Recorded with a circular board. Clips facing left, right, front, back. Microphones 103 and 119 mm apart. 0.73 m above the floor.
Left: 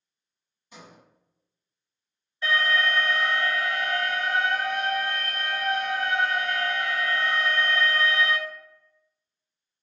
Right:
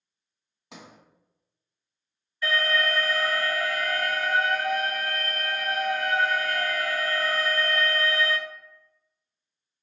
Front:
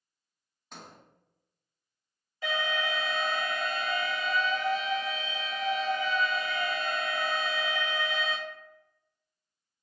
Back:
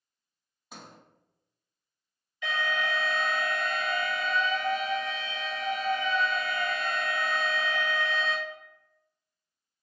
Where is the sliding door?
95° right, 0.7 m.